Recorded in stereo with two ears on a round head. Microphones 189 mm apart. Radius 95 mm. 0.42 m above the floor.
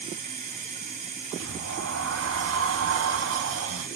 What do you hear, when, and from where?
0.0 s running water: 35° right (ahead or behind), 1.8 m
1.4 s a sliding door: 65° right (ahead or behind), 0.7 m